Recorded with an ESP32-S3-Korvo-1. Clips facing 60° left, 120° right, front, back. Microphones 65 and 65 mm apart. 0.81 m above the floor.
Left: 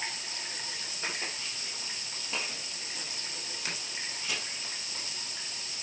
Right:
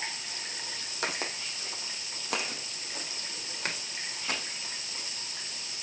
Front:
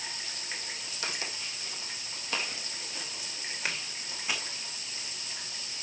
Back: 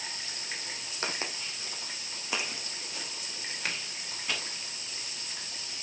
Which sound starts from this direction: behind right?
Footsteps, at 1.0 s.